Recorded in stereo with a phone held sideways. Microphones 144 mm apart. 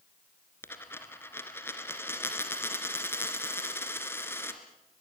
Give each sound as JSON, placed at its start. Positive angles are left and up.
{"t": 0.6, "sound": "a dropped coin", "side_deg": 15, "distance_m": 2.5}